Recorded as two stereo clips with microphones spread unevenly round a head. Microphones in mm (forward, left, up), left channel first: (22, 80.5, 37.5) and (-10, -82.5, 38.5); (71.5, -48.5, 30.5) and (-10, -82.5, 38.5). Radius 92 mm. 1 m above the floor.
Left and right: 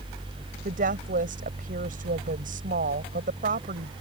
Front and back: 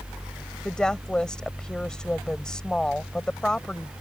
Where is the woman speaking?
60° right.